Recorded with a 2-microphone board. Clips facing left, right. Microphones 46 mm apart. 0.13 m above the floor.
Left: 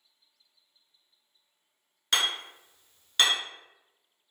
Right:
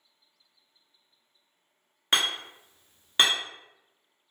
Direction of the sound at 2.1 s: 25° right (ahead or behind).